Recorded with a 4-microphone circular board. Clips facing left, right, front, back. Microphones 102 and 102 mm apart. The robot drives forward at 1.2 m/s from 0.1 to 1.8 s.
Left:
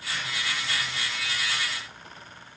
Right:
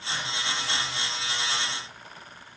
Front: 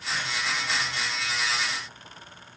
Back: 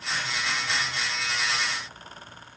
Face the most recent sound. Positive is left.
No sound to turn to.